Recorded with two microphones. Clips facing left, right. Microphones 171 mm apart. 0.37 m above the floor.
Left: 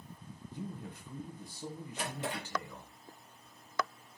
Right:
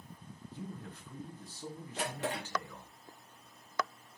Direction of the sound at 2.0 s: 80° right.